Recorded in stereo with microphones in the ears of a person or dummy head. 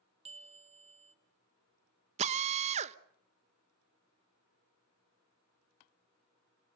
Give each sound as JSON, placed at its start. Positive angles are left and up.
{"t": 0.2, "sound": "a bell", "side_deg": -30, "distance_m": 1.3}
{"t": 2.2, "sound": "a drill", "side_deg": -35, "distance_m": 1.1}